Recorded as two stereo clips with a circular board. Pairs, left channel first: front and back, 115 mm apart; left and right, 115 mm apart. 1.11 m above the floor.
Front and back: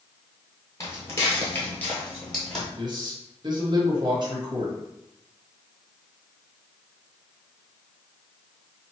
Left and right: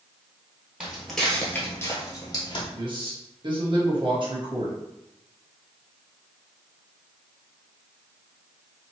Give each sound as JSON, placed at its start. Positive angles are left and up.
{"t": 0.8, "sound": "footsteps", "azimuth_deg": -20, "distance_m": 1.2}
{"t": 2.8, "sound": "a man speaking", "azimuth_deg": -130, "distance_m": 1.3}